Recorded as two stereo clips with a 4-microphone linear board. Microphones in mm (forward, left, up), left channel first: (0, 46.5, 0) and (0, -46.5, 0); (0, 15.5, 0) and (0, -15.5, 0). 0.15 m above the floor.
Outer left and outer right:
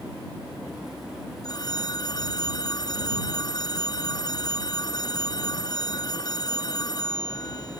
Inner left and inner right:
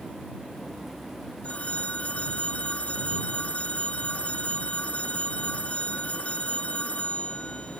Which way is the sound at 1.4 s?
45° left (ahead or behind).